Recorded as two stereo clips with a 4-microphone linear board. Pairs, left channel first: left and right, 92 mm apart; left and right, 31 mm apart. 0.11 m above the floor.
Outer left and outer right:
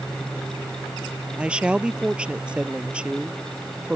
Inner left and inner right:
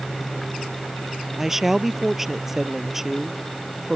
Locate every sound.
1.4 s a woman speaking: 10° right (ahead or behind)